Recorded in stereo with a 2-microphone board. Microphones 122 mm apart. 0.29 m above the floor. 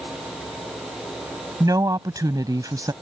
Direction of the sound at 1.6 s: 30° right (ahead or behind).